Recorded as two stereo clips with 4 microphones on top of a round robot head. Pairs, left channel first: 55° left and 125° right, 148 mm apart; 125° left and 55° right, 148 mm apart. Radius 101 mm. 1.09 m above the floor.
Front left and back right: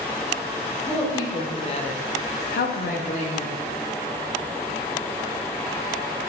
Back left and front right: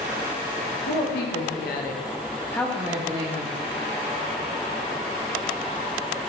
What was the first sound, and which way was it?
A woman speaking, 125° left.